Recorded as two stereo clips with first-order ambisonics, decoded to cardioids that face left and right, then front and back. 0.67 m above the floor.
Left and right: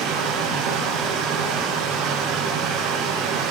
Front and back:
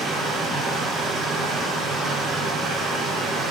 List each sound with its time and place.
0.0 s running water: 125° right, 7 m